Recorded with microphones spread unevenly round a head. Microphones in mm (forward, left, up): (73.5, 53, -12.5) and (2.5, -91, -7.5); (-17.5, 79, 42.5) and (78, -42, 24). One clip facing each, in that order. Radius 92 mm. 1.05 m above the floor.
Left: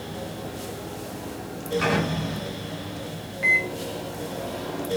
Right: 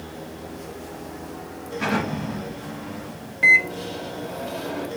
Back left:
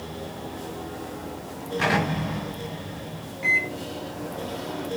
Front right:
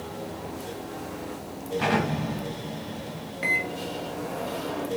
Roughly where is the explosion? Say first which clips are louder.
Right 1 dB, back left 1 dB; left.